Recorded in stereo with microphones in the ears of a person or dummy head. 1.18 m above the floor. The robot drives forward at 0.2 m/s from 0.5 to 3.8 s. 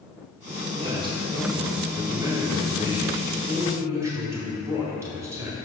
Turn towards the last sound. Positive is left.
turn(degrees=-15)  # may be behind; listen again after turning